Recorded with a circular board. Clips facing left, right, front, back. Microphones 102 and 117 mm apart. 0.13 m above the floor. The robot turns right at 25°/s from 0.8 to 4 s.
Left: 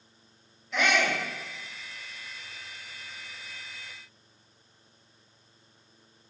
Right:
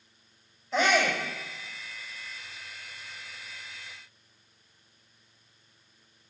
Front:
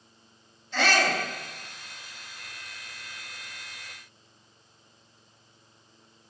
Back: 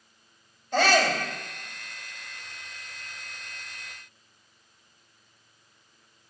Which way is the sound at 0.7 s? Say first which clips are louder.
Right 2 dB, back 3 dB; 145° right.